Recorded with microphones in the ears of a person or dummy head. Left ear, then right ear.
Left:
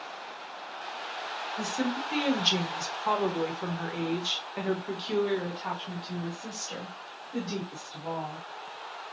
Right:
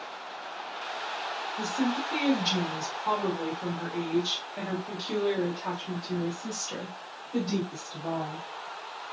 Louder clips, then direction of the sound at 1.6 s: Right 2 dB; 60° left (ahead or behind).